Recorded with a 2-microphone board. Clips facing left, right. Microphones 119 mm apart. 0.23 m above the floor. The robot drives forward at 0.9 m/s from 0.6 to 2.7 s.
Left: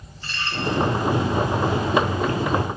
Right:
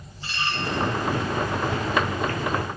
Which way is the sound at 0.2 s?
15° right (ahead or behind).